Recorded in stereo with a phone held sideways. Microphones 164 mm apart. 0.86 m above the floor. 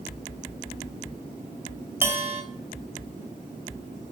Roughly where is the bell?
Centre.